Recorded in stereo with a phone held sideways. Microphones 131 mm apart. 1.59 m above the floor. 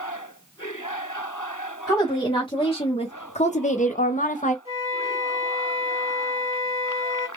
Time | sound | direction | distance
1.9 | a woman speaking | 25° left (ahead or behind) | 1.3 m
4.7 | a flute | 20° right (ahead or behind) | 1.9 m